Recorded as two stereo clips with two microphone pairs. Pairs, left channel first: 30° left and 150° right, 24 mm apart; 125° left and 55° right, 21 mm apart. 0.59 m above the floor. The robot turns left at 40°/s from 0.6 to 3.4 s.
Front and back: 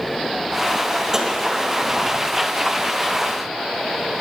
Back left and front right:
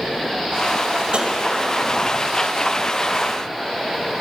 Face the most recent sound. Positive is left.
turn(degrees=-165)